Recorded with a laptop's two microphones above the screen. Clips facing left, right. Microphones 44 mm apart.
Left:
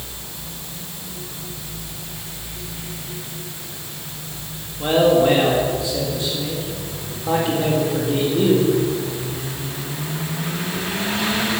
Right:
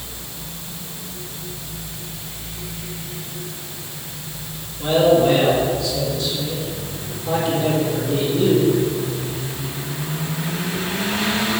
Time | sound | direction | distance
4.8 | a man speaking | 25° left (ahead or behind) | 1.8 m